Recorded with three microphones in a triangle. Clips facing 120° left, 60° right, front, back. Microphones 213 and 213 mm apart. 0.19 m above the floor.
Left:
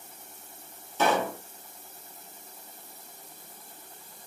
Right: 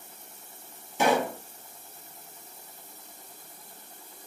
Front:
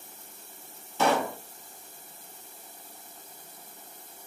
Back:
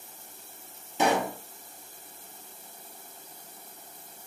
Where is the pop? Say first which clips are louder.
Right 2 dB, even; 120° right, 0.9 m.